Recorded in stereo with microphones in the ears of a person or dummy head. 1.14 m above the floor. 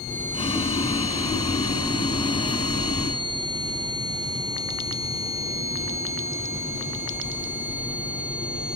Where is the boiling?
25° left (ahead or behind), 1.1 m.